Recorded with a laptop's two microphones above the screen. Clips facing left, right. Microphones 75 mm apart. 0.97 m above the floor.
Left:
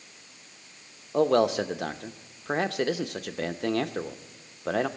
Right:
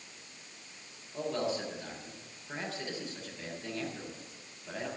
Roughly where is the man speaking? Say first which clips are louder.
Left 12 dB; left.